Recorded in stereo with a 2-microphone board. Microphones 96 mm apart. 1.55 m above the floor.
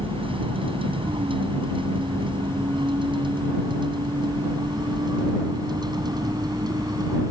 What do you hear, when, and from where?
0.0 s a vehicle: 65° right (ahead or behind); by 7.3 s 40° right (ahead or behind)